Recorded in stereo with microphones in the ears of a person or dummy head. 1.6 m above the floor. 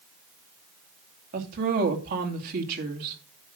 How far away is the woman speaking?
About 3 m.